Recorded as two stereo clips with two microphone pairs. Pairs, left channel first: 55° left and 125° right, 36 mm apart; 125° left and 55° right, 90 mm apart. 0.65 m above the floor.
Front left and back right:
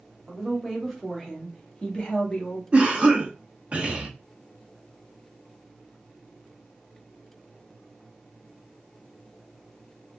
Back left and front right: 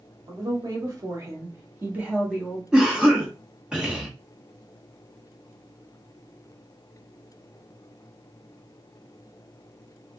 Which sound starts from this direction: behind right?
A cough, at 2.7 s.